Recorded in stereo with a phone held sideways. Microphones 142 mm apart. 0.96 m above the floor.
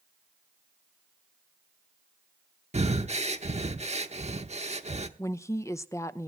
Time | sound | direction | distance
2.7 | breathing | 50° right (ahead or behind) | 0.9 m
5.2 | a woman speaking | 20° left (ahead or behind) | 0.5 m